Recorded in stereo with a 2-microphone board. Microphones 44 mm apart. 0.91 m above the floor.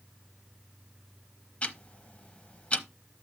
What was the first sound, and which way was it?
Ticking, 30° left (ahead or behind).